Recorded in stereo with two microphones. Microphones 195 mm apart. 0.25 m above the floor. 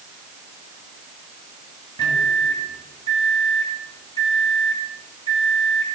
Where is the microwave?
25° left (ahead or behind), 2.5 m.